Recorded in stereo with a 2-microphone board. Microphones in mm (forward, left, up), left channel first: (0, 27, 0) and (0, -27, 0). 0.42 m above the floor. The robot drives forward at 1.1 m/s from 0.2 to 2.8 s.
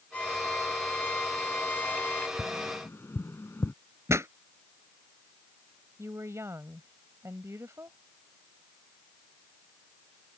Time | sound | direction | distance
0.1 | a violin | 30° left (ahead or behind) | ?
2.4 | tapping | 40° left (ahead or behind) | ?
4.1 | a pop | 65° right (ahead or behind) | ?
6.0 | a woman speaking | 65° right (ahead or behind) | ?